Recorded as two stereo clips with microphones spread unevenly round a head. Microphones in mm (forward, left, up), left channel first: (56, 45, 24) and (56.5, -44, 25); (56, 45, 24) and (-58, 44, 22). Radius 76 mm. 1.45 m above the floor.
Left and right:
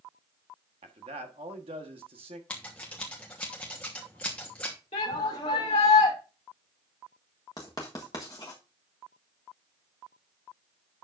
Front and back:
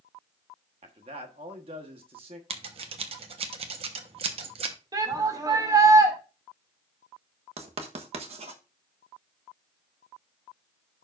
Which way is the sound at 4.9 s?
125° left.